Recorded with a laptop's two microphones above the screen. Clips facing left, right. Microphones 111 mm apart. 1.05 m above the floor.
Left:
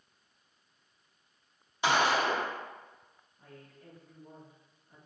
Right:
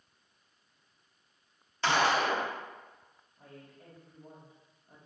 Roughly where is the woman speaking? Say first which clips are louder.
Right 1 dB; right.